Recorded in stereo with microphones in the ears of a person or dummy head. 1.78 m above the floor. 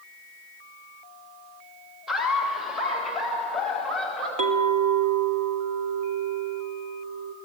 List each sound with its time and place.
2.1 s laughter: centre (ahead or behind), 2.5 m; by 4.3 s 5° left (ahead or behind), 5 m
4.4 s a clink: 40° right (ahead or behind), 1.0 m